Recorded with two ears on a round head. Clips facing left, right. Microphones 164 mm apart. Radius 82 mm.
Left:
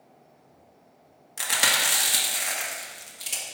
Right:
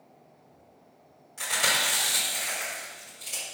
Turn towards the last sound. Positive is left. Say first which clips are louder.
# left 1 dB
turn(degrees=75)  # may be behind; listen again after turning